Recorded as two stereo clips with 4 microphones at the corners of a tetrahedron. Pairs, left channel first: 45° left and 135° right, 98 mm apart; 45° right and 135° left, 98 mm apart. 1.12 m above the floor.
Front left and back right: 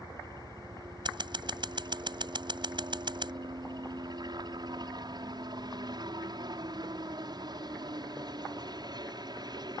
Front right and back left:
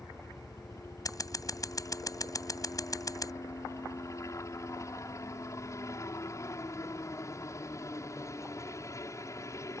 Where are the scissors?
95° right.